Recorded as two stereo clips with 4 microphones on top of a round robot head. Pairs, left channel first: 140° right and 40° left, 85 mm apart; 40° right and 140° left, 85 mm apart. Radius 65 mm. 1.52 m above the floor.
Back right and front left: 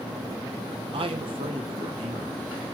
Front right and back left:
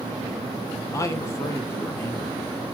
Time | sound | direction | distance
0.9 | a man speaking | 15° left | 1.5 m